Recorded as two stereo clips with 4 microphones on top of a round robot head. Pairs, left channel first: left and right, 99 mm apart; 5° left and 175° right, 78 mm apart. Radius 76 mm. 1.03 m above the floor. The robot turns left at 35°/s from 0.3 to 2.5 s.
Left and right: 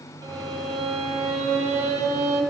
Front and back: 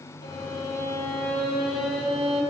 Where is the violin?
35° right, 0.8 m; by 2.4 s 110° right, 0.8 m.